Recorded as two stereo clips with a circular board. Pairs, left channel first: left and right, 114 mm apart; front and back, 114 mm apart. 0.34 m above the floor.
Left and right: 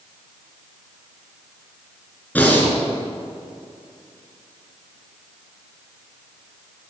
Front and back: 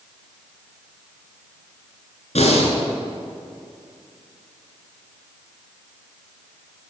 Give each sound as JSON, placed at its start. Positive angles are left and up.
{"t": 2.4, "sound": "breathing", "azimuth_deg": 15, "distance_m": 2.5}